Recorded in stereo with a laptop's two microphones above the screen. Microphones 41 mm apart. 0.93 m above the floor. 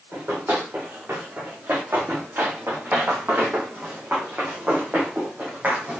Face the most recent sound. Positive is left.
turn(degrees=-35)  # may be behind; listen again after turning